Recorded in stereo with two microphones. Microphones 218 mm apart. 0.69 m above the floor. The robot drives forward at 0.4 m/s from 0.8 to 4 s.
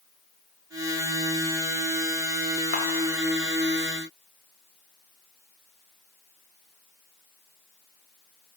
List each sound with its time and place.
2.7 s a camera shutter: 55° left (ahead or behind), 1.4 m